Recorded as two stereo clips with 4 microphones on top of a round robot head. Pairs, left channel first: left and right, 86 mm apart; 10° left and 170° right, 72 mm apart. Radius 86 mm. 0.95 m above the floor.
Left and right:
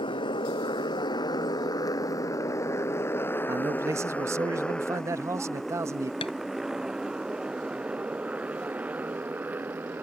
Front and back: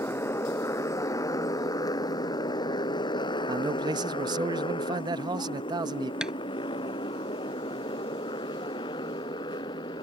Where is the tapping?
110° left.